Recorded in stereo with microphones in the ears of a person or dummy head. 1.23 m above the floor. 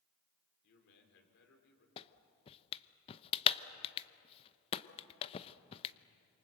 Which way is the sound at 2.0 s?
35° left (ahead or behind).